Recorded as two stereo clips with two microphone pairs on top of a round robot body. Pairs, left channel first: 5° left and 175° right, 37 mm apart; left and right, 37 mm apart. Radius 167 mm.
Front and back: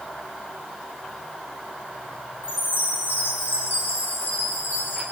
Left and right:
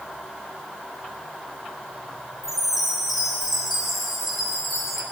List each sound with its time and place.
2.4 s a chime: 10° right, 5 m